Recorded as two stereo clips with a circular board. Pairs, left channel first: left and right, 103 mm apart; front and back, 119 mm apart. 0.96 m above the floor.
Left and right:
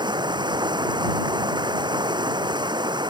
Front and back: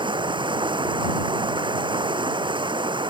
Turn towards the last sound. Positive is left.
turn(degrees=-135)